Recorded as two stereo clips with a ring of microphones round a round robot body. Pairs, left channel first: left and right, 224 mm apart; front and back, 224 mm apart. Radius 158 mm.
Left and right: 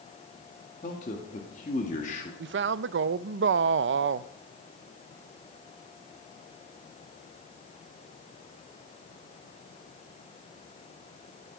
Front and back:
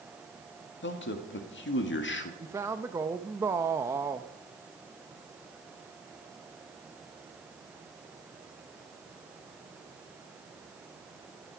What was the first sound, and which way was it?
A man speaking, 25° left.